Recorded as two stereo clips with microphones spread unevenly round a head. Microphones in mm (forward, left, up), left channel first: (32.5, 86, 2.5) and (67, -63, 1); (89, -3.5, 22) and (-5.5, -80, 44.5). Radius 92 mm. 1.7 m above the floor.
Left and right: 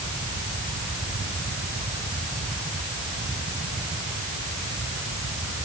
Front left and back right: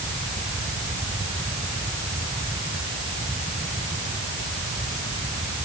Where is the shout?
I don't hear a shout.